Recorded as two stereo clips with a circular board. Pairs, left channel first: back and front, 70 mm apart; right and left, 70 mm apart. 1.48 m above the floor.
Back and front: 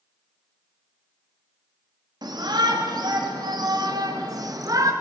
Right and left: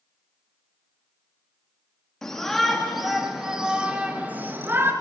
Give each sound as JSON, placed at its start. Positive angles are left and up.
{"t": 2.2, "sound": "a shout", "azimuth_deg": -5, "distance_m": 3.0}